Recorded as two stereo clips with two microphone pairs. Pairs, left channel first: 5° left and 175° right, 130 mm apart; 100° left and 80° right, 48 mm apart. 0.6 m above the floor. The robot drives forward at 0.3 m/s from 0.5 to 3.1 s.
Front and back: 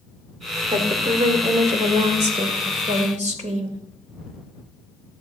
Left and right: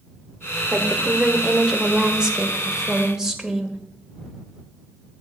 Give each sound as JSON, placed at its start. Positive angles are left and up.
{"t": 0.7, "sound": "a woman speaking", "azimuth_deg": -145, "distance_m": 1.8}